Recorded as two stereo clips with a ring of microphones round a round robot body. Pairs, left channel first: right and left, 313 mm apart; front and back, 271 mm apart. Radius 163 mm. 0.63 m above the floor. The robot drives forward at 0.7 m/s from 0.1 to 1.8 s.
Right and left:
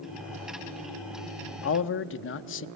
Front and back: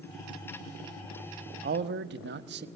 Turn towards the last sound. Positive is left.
turn(degrees=-135)